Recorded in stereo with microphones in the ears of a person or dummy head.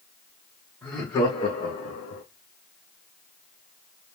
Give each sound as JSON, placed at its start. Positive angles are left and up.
{"t": 0.8, "sound": "laughter", "side_deg": 20, "distance_m": 1.0}